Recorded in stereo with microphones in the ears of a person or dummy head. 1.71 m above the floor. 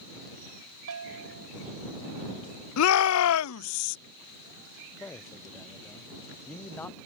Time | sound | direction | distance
0.9 | a bell | 80° right | ?
2.8 | a shout | 80° left | ?
5.0 | a man speaking | 10° left (ahead or behind) | ?